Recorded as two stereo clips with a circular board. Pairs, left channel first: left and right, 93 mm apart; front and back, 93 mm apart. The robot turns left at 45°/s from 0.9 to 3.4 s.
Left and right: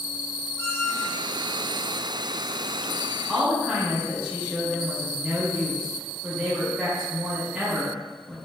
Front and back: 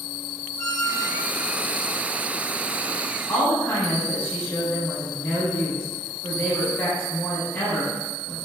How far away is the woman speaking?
About 0.7 m.